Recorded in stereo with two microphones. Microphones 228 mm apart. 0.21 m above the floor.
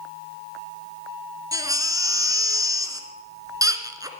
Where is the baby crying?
15° right (ahead or behind), 1.6 m.